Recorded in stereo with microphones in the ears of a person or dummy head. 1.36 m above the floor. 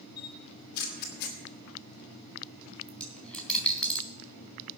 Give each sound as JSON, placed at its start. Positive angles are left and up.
{"t": 0.2, "sound": "a camera shutter", "side_deg": 65, "distance_m": 2.0}
{"t": 2.9, "sound": "a dropped coin", "side_deg": 5, "distance_m": 3.5}